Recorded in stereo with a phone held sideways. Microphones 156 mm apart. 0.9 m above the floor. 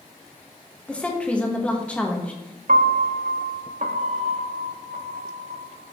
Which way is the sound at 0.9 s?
10° left (ahead or behind).